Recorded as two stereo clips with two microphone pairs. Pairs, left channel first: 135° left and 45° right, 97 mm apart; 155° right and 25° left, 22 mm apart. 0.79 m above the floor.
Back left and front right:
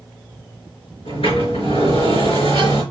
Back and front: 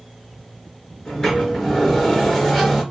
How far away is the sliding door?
About 3.5 m.